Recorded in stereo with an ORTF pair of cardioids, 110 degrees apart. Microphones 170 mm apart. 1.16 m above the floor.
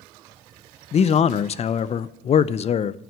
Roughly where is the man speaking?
Ahead left.